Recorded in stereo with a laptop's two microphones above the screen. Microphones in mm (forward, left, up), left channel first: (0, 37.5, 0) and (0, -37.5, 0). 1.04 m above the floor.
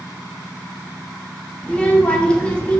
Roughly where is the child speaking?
Centre.